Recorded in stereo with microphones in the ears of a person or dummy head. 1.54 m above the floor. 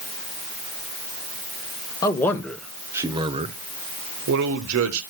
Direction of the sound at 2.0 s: 20° left (ahead or behind).